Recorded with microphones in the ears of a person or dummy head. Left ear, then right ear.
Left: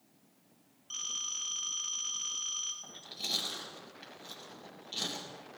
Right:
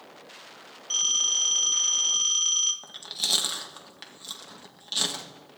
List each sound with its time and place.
0.9 s a phone ringing: 40° right (ahead or behind), 2.5 m
2.8 s chewing: 70° right (ahead or behind), 1.8 m